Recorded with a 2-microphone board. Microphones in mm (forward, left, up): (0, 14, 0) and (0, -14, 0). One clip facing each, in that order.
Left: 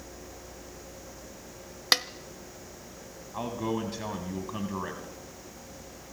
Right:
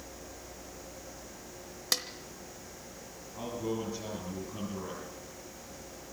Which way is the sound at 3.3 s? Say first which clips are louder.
Left 4 dB; 75° left (ahead or behind).